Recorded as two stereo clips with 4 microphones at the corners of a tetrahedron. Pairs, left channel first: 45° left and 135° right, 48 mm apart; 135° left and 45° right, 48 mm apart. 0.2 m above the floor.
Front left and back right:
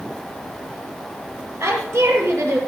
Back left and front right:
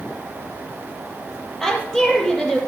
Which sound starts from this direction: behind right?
A woman speaking, at 1.6 s.